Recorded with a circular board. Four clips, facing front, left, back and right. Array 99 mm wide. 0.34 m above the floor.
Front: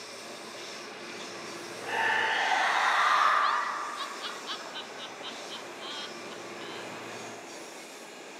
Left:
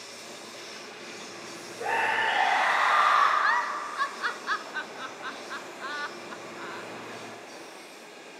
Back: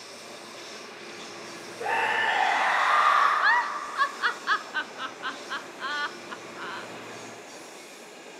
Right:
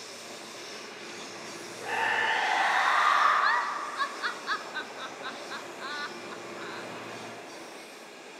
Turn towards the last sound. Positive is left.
turn(degrees=170)